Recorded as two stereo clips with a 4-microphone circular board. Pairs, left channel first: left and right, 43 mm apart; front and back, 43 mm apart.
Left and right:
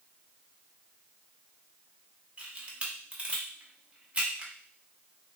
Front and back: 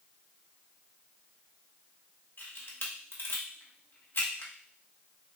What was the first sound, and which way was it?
A camera shutter, 30° right.